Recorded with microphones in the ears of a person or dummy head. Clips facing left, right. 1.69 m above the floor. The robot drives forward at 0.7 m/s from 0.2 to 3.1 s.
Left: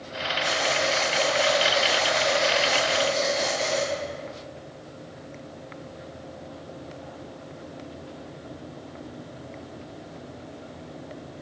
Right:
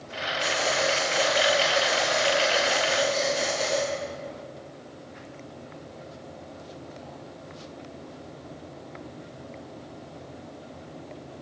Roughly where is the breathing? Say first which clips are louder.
Even; right.